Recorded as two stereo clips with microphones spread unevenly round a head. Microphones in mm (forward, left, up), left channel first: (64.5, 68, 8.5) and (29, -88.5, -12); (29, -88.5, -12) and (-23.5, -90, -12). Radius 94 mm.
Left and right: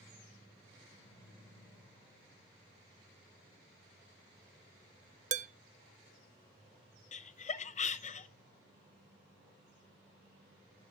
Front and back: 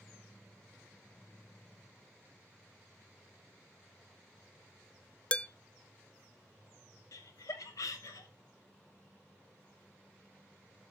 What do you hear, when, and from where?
5.3 s dishes clattering: 65° right, 0.6 m
7.1 s laughter: 35° left, 0.8 m